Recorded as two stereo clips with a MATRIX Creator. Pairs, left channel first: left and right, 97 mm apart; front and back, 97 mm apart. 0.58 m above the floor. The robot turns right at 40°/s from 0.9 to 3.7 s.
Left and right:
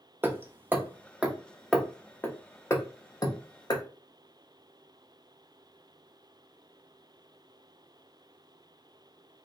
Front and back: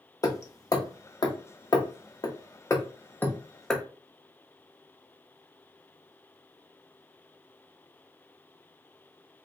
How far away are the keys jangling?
I don't hear keys jangling.